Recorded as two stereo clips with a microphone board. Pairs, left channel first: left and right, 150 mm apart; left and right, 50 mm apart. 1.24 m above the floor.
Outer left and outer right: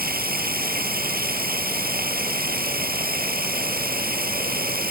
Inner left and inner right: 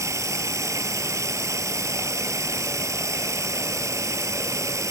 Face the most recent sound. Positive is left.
turn(degrees=-75)  # may be behind; listen again after turning